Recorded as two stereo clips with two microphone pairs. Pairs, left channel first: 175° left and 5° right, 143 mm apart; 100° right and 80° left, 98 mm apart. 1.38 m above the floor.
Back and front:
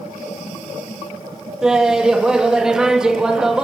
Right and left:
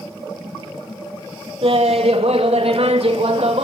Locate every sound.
1.6 s laughter: 80° left, 2.5 m